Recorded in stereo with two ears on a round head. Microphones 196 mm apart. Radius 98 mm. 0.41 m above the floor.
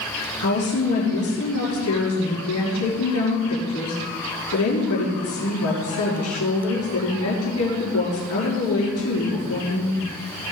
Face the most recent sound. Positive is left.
turn(degrees=75)  # may be behind; listen again after turning